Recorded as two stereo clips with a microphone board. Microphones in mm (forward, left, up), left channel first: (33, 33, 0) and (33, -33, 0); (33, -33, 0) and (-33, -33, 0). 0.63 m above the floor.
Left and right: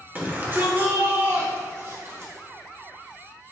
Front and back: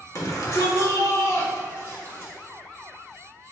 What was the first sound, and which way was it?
A shout, 30° right.